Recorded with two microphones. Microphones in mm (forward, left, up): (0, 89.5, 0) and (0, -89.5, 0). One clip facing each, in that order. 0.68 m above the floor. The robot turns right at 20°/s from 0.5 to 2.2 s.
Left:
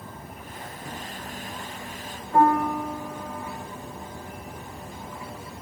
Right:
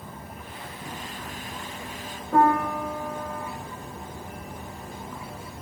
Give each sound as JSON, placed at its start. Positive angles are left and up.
{"t": 2.3, "sound": "a piano", "side_deg": -80, "distance_m": 7.5}